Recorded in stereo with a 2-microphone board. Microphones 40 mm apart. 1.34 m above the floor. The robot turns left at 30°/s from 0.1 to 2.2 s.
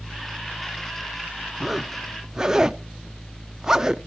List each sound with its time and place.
1.6 s a zipper: centre (ahead or behind), 0.6 m; by 4.0 s 10° right (ahead or behind), 0.6 m